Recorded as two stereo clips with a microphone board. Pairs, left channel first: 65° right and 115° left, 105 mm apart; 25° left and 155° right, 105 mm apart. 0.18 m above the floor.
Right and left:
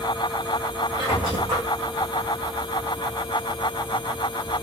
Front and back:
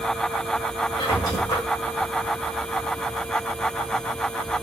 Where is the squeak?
75° left, 4 m.